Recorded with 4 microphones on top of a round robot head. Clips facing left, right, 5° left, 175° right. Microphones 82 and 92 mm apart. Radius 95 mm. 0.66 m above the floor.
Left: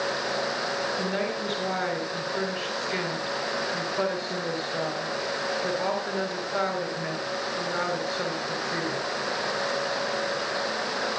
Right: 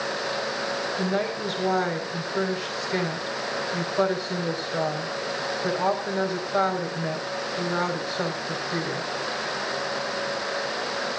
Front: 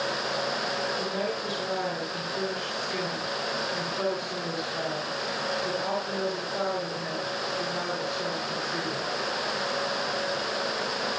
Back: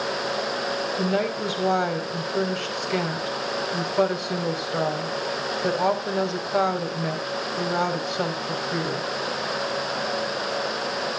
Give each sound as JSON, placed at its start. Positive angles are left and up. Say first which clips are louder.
{"t": 1.0, "sound": "a woman speaking", "louder": "right 2 dB, back 6 dB", "azimuth_deg": -165, "distance_m": 4.5}